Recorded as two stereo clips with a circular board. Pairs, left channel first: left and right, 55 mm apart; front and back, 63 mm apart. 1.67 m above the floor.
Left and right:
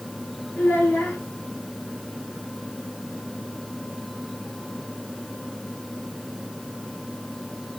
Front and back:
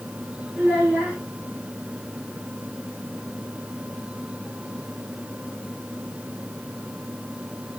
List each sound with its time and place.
0.6 s a child speaking: 120° left, 1.4 m